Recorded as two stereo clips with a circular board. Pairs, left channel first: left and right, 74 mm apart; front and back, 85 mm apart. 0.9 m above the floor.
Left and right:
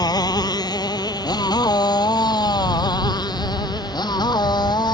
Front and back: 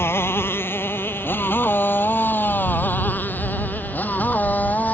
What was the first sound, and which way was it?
A motorcycle, 65° left.